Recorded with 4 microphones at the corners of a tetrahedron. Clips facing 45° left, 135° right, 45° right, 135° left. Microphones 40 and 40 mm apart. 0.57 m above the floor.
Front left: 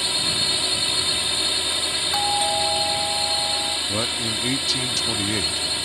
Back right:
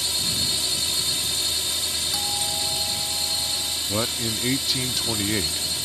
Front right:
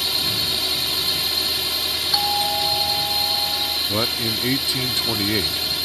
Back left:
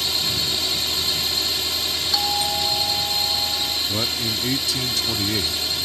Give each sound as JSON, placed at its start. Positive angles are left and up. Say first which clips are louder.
{"t": 0.0, "sound": "a drone", "louder": "front left 3 dB, front right 1 dB", "azimuth_deg": 35}
{"t": 2.1, "sound": "a doorbell", "louder": "front left 6 dB, front right 2 dB", "azimuth_deg": 30}
{"t": 3.9, "sound": "a man speaking", "louder": "front left 2 dB, front right 2 dB", "azimuth_deg": -55}